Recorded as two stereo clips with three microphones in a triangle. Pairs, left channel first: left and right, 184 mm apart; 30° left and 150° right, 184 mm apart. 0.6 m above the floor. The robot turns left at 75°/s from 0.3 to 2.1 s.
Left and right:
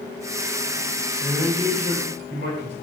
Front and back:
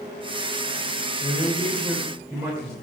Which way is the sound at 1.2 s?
15° right.